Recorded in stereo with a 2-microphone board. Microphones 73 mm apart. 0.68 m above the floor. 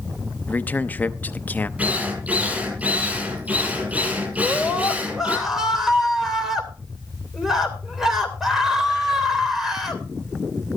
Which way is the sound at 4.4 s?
5° right (ahead or behind).